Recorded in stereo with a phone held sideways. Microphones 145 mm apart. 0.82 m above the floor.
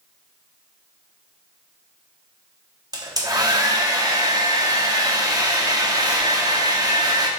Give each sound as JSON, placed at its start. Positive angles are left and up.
{"t": 2.9, "sound": "a hair dryer", "side_deg": -25, "distance_m": 1.0}